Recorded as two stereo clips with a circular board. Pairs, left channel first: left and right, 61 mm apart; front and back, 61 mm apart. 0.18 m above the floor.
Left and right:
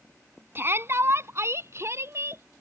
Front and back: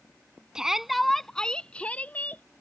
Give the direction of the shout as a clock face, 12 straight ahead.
4 o'clock.